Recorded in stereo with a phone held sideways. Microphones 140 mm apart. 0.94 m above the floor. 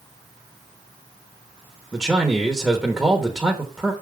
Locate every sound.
1.9 s a man speaking: 5° right (ahead or behind), 1.2 m